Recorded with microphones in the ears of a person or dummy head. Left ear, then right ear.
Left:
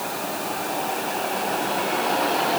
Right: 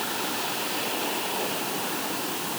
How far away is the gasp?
I don't hear a gasp.